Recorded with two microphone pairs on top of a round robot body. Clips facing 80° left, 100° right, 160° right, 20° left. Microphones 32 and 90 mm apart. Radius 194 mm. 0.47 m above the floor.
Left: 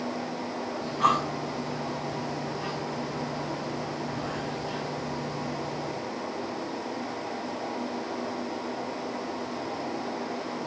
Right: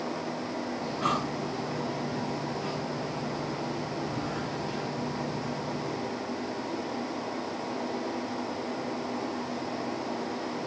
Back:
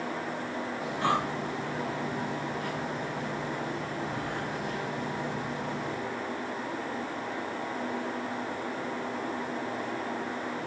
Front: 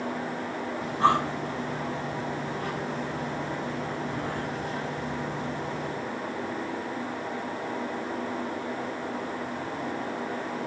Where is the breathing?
75° left, 6.5 m.